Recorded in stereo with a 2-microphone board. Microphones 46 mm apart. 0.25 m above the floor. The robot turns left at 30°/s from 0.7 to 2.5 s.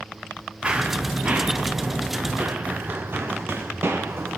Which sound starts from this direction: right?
Running footsteps, at 0.6 s.